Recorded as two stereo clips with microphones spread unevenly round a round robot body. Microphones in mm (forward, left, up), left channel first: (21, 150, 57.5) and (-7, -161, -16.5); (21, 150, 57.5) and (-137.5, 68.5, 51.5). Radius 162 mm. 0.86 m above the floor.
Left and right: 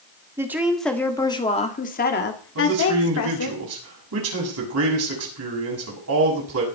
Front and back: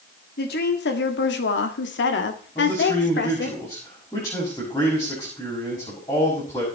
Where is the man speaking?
50° right, 6 m.